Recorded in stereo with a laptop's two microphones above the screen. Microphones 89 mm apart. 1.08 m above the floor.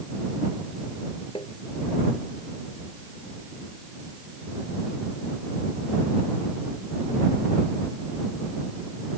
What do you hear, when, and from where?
1.4 s tapping: 65° left (ahead or behind)